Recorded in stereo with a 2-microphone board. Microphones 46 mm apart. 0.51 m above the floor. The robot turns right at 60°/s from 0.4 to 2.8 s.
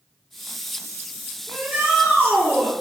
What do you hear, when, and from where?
1.5 s a shout: 145° right, 1.7 m; by 2.7 s 70° right, 1.7 m